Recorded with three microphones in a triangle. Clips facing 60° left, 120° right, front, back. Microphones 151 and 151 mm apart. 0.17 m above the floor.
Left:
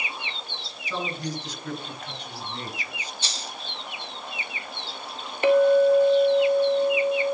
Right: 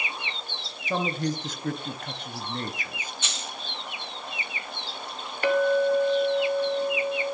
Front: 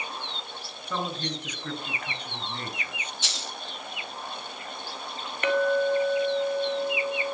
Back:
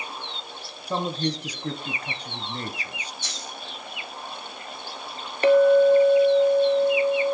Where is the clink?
125° left, 1.6 m.